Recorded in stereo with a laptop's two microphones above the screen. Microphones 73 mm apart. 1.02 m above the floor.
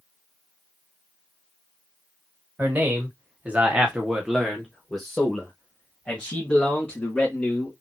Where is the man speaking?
30° right (ahead or behind), 1.0 m; by 7.7 s 20° left (ahead or behind), 2.5 m.